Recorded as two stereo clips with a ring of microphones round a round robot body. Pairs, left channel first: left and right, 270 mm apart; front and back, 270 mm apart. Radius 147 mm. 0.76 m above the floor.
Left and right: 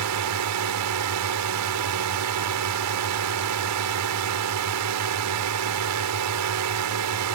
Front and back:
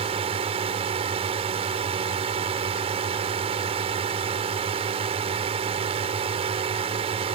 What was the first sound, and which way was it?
A drone, 110° right.